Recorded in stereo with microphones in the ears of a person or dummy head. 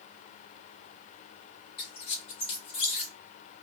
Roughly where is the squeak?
Left.